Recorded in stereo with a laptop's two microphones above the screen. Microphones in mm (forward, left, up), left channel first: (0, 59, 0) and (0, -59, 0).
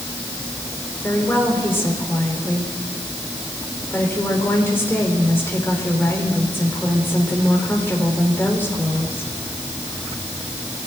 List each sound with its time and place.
1.0 s a woman speaking: 15° left (ahead or behind), 4 m